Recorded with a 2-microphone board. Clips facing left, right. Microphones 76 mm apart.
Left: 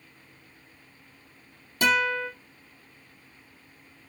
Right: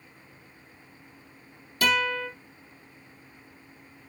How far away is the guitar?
About 4 m.